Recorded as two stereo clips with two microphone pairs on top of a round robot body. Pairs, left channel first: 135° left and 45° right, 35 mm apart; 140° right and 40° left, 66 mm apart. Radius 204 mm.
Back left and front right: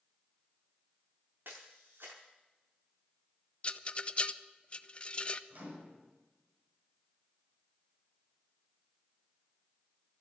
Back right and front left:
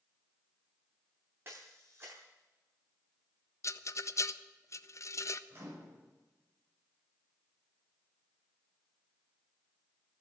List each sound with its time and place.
1.4 s a camera shutter: 35° right, 0.5 m
3.6 s a rattle: 175° right, 0.8 m
5.5 s a microwave: 15° right, 4.5 m